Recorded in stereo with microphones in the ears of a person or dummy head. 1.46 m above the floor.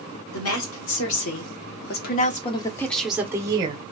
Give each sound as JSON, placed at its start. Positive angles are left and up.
{"t": 0.3, "sound": "a woman speaking", "side_deg": 85, "distance_m": 1.7}